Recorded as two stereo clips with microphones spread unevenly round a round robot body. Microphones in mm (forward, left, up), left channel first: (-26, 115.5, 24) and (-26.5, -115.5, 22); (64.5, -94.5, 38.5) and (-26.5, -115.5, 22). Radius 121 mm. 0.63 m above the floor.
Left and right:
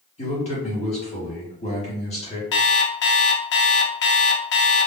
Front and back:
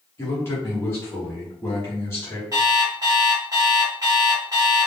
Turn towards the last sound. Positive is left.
turn(degrees=130)